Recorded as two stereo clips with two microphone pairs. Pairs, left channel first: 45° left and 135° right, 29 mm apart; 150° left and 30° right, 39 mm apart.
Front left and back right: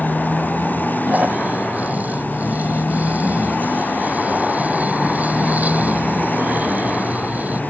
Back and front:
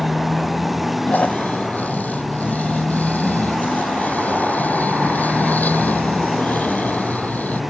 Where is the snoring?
165° right.